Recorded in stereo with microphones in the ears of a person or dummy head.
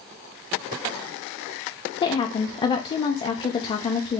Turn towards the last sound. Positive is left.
turn(degrees=25)  # may be behind; listen again after turning